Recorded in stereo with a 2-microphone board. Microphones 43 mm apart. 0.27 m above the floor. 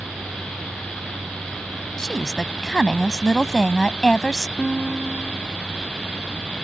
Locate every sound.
2.0 s a woman speaking: 15° left (ahead or behind)
4.6 s a guitar: 5° left (ahead or behind)